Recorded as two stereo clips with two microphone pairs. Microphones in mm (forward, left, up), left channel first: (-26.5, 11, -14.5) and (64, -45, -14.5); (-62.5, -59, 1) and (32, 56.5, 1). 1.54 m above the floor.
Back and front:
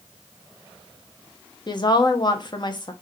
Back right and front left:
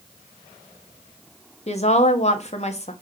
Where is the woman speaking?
165° right, 0.7 m.